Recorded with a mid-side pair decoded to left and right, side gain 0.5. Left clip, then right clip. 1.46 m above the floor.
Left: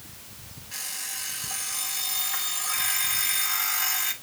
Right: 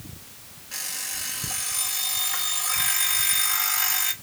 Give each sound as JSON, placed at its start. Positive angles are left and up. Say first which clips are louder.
{"t": 0.7, "sound": "an alarm clock", "louder": "right 2 dB", "azimuth_deg": -25, "distance_m": 3.0}